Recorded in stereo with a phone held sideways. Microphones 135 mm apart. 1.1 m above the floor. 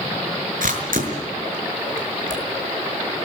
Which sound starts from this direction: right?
A camera shutter, at 0.6 s.